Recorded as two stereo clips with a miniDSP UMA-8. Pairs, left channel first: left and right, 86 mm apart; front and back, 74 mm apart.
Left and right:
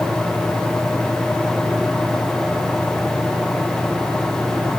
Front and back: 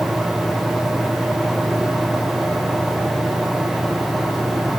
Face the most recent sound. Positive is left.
No sound to turn to.